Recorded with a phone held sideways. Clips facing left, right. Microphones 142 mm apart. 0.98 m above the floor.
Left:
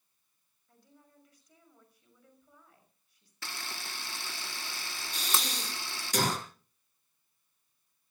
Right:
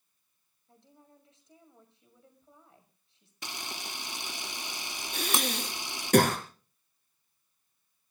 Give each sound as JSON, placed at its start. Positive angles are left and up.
{"t": 0.7, "sound": "a woman speaking", "side_deg": -25, "distance_m": 6.0}
{"t": 3.4, "sound": "a camera shutter", "side_deg": -15, "distance_m": 0.7}
{"t": 5.1, "sound": "breathing", "side_deg": -60, "distance_m": 4.5}